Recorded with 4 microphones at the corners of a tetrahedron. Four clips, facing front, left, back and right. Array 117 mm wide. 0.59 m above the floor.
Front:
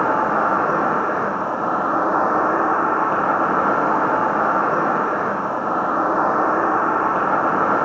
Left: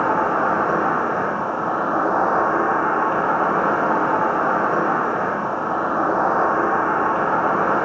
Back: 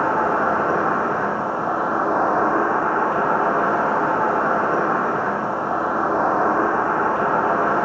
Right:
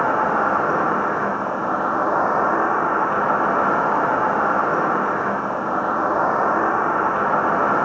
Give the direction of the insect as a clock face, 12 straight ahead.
12 o'clock.